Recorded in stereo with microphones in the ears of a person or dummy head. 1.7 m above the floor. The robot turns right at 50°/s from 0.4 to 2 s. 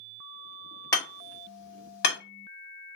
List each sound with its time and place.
0.9 s hammering: 20° left (ahead or behind), 1.6 m; by 2.2 s 65° left (ahead or behind), 1.6 m